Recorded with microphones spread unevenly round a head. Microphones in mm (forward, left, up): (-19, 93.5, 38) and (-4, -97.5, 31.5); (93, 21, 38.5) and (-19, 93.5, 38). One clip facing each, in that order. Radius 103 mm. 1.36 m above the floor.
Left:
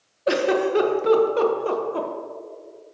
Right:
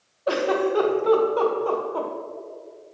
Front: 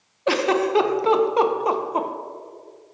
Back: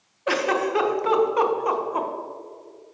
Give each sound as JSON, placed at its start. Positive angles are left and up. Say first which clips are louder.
{"t": 0.3, "sound": "a giggle", "louder": "left 2 dB, front 3 dB", "azimuth_deg": 30, "distance_m": 0.8}